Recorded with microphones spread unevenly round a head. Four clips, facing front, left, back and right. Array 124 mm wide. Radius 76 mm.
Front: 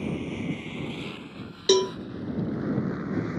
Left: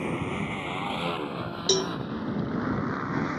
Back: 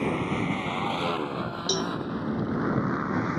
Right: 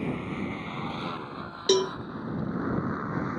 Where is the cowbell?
10° right.